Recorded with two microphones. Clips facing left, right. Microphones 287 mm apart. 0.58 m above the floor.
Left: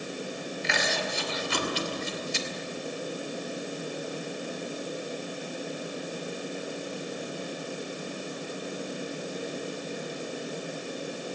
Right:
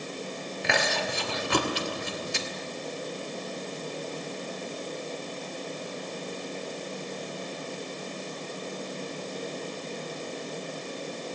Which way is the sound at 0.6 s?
65° right (ahead or behind).